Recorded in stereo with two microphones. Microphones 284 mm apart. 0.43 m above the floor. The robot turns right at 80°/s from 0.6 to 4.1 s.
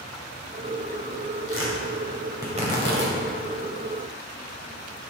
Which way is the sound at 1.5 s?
50° left (ahead or behind).